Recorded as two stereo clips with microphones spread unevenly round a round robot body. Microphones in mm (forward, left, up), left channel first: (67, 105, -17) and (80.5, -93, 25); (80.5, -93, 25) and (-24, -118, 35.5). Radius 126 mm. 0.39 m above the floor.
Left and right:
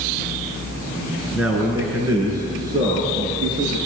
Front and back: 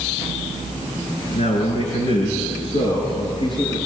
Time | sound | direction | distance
1.3 | a man speaking | straight ahead | 4.5 m